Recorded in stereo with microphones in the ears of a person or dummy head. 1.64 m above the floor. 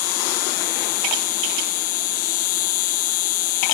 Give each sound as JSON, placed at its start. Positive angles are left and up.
{"t": 0.0, "sound": "an insect", "side_deg": 50, "distance_m": 1.2}